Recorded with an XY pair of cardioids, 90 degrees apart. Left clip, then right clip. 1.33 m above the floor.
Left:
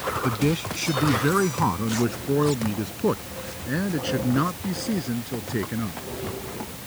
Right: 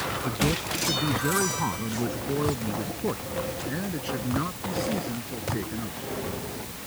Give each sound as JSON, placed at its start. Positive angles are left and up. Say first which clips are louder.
{"t": 0.2, "sound": "a man speaking", "louder": "left 2 dB", "azimuth_deg": 40}